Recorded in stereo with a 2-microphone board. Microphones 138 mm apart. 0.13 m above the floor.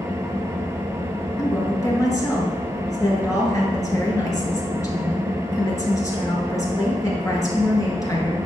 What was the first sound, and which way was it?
An engine running, 20° right (ahead or behind).